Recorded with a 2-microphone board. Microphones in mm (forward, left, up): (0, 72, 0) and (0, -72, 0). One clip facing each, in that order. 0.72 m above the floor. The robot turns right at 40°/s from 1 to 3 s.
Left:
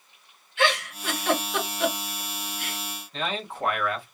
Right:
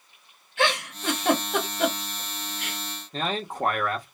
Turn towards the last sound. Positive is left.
turn(degrees=-40)  # may be behind; listen again after turning